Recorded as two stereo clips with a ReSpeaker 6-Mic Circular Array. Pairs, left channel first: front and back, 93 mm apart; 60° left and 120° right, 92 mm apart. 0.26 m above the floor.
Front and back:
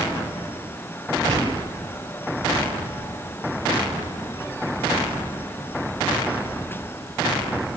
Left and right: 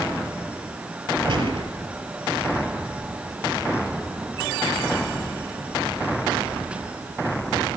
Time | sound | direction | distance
1.3 | a gunshot | 130° right | 4.5 m